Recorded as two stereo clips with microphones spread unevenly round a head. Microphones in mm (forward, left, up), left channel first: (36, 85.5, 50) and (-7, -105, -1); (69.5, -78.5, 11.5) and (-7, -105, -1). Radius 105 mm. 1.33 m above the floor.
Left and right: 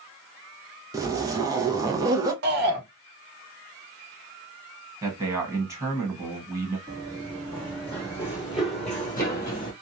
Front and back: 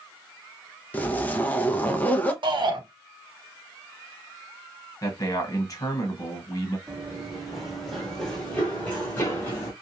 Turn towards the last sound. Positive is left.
turn(degrees=50)